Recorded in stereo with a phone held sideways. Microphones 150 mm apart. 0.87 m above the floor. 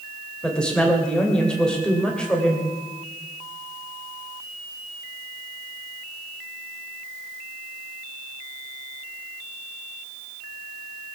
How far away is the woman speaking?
About 3 m.